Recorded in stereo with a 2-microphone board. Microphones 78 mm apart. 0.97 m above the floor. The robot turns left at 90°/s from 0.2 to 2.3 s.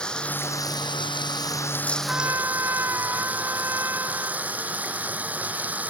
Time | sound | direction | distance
0.0 | running water | 170° left | ?
2.1 | a trumpet | 15° right (ahead or behind) | ?